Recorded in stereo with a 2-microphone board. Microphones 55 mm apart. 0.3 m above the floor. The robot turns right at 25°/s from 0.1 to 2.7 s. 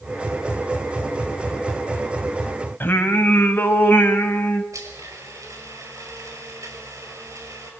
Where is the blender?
70° right (ahead or behind), 5.5 m.